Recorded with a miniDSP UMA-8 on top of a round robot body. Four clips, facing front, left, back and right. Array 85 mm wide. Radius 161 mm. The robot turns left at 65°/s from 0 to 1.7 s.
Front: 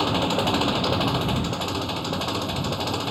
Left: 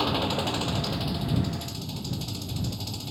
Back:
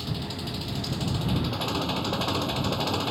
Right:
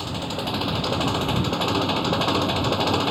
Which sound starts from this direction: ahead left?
An engine running, at 0.0 s.